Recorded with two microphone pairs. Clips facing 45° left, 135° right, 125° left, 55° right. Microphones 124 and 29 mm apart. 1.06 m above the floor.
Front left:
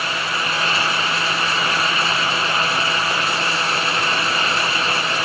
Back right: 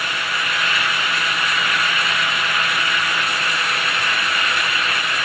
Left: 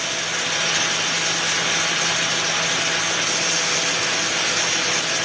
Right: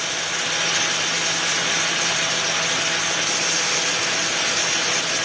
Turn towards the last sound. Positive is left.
No sound to turn to.